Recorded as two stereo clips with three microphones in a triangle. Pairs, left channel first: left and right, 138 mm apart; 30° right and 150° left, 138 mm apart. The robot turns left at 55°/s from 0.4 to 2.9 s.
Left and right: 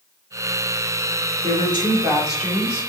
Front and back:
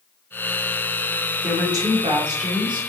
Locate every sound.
1.4 s a woman speaking: 130° right, 1.7 m; by 2.8 s 155° left, 1.7 m